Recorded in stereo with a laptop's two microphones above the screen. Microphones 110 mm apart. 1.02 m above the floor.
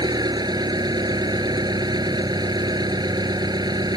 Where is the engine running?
40° right (ahead or behind).